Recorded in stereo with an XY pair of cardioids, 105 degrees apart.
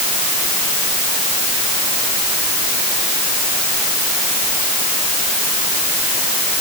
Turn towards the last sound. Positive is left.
No sound to turn to.